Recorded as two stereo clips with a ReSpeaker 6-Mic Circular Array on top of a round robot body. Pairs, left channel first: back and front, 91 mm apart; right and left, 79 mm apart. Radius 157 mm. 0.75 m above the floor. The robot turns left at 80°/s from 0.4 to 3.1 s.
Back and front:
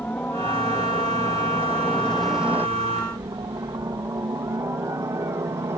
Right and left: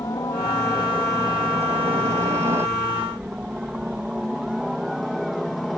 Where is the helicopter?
110° right; by 5.8 s 5° right.